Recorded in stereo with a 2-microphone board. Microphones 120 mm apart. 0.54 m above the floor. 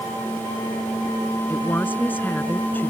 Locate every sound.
1.5 s a woman speaking: 15° left (ahead or behind)